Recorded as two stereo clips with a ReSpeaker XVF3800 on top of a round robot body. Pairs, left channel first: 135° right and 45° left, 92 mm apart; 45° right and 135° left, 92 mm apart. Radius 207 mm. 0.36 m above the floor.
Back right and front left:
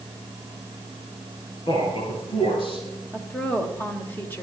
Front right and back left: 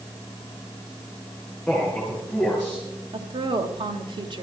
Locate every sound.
1.7 s a man speaking: 120° right, 7.5 m; by 2.9 s 125° right, 6.5 m
3.1 s a woman speaking: 155° left, 2.0 m